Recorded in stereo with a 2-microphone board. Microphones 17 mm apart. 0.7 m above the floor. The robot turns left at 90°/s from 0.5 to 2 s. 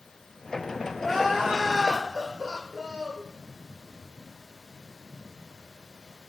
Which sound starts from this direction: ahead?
Crying, at 1.0 s.